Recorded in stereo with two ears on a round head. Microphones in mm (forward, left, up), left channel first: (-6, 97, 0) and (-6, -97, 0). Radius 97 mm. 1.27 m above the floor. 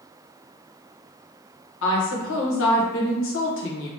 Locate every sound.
1.8 s a woman speaking: 65° left (ahead or behind), 0.9 m